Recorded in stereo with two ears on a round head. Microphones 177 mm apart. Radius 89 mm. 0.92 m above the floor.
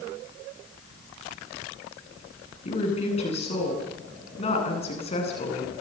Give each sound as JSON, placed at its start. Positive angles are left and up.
{"t": 2.6, "sound": "a woman speaking", "side_deg": 35, "distance_m": 9.5}